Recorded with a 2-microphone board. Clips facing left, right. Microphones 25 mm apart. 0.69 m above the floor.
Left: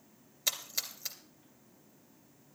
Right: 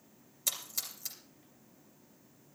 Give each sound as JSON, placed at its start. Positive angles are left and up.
{"t": 0.5, "sound": "a splash", "side_deg": 20, "distance_m": 2.5}